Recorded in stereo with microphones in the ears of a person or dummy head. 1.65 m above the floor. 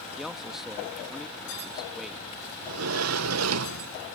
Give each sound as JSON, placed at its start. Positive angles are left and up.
{"t": 0.2, "sound": "a man speaking", "side_deg": -5}
{"t": 2.6, "sound": "a sliding door", "side_deg": -85}